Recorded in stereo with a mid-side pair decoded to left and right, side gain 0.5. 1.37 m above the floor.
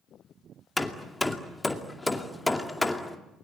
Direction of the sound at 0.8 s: 10° left.